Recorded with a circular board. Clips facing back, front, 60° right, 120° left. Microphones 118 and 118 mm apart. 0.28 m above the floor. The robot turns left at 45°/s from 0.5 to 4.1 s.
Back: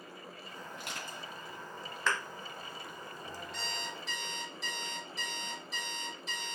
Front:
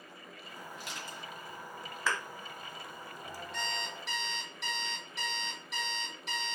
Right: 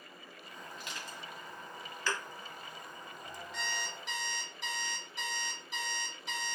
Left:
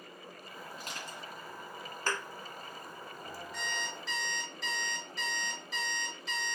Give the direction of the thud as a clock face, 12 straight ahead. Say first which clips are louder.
Back 1 dB, left 1 dB; 9 o'clock.